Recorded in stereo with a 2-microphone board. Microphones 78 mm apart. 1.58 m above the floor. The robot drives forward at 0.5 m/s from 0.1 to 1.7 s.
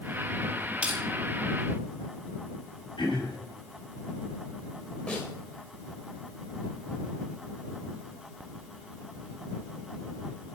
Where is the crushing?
15° right (ahead or behind), 3.5 m.